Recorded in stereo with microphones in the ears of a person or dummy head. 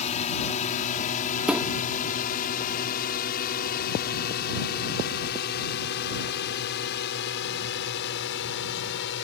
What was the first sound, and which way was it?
A drone, 35° left (ahead or behind).